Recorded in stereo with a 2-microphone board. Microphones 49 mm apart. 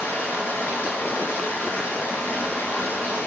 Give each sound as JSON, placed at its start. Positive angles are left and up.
{"t": 0.0, "sound": "running water", "side_deg": 45, "distance_m": 3.5}